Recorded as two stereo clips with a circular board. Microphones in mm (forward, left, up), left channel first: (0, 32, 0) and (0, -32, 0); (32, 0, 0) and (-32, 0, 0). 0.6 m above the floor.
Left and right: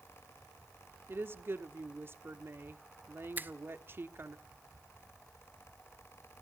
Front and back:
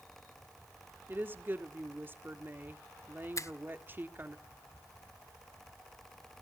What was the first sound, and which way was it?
A woman speaking, 130° right.